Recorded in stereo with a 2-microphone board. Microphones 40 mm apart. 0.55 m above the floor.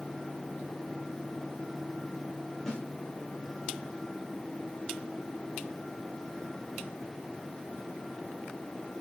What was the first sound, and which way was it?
A snare drum, 15° left (ahead or behind).